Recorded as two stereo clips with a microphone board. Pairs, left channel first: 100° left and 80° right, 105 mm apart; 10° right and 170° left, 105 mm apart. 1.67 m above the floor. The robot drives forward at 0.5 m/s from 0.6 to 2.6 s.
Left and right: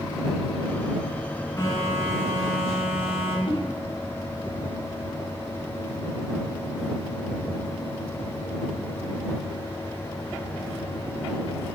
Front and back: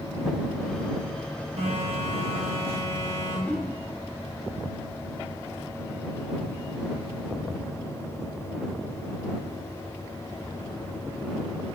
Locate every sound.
1.6 s a phone buzzing: 155° left, 0.9 m; by 3.4 s 165° left, 1.3 m
3.5 s a whoosh: 60° left, 0.5 m